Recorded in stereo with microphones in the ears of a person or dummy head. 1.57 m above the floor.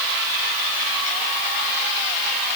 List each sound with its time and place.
Only background noise.